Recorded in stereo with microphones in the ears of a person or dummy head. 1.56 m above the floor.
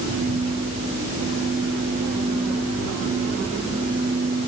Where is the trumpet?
I don't hear a trumpet.